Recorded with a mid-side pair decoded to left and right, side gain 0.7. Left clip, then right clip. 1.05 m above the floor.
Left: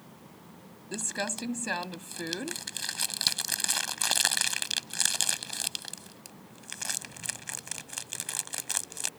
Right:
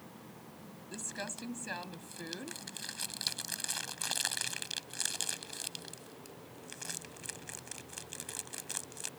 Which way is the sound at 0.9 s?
35° left.